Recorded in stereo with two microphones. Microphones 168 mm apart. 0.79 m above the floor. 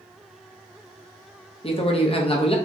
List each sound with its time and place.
1.6 s a man speaking: 35° left (ahead or behind), 0.6 m